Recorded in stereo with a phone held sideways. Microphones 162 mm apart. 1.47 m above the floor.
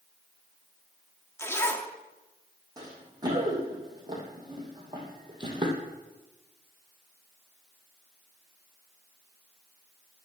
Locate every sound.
1.4 s a zipper: 15° left (ahead or behind), 1.0 m
2.8 s running footsteps: 25° right (ahead or behind), 4 m; by 5.8 s 30° right (ahead or behind), 2.5 m